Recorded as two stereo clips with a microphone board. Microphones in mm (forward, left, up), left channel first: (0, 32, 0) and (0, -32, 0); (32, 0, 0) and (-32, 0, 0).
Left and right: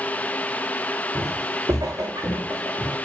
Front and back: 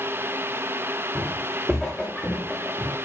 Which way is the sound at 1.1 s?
95° right.